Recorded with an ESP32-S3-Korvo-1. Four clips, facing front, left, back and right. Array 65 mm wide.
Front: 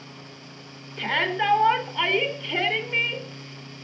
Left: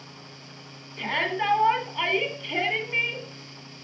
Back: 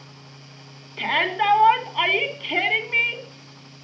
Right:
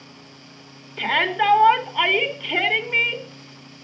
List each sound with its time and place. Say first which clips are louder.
1.0 s a shout: right 6 dB, back 2 dB; 130° right, 2 m